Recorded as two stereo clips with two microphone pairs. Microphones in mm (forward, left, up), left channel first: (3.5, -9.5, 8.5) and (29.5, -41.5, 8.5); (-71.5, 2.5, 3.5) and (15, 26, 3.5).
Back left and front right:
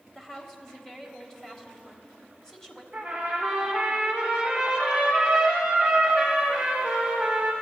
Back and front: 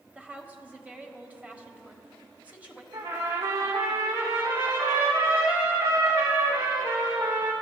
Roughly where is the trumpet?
Ahead.